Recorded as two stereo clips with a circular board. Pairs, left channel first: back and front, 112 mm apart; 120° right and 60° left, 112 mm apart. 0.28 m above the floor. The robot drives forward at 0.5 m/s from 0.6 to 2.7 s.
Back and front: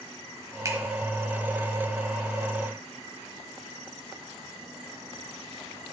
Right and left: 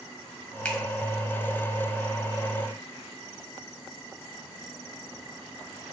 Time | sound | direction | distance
0.7 | a finger snap | 50° right | 1.0 m